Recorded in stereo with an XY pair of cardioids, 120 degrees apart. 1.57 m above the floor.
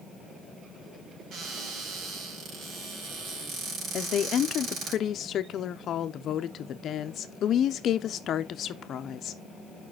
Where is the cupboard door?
65° right, 4 m.